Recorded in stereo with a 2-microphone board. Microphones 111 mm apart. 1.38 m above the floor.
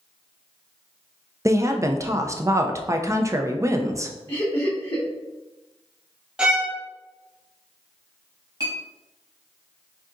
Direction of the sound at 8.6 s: 35° right (ahead or behind).